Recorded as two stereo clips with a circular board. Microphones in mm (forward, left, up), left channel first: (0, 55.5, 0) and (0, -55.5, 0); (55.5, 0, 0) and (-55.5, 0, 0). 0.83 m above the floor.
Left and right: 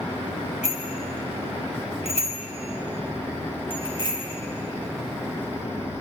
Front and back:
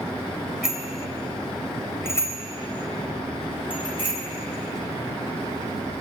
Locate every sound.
0.6 s a bicycle bell: 95° left, 3 m; by 4.2 s 40° left, 4.5 m